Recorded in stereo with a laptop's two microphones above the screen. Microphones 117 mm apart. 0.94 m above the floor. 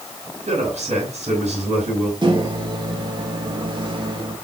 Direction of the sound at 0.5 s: 70° right (ahead or behind).